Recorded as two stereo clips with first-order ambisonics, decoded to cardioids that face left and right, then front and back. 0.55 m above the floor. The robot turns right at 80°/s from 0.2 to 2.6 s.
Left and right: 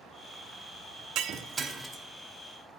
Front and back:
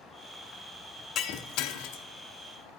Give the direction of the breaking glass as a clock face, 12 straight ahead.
2 o'clock.